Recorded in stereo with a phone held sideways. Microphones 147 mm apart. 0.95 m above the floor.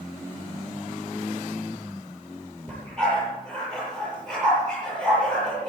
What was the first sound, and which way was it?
A dog barking, 5° left (ahead or behind).